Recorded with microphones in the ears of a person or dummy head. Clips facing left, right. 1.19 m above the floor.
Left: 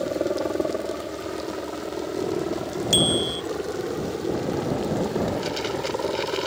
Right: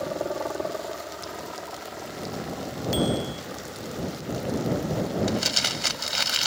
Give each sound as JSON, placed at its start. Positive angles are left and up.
{"t": 0.0, "sound": "a helicopter", "side_deg": 35}
{"t": 2.9, "sound": "a bicycle bell", "side_deg": 55}
{"t": 5.3, "sound": "crumpling", "side_deg": -65}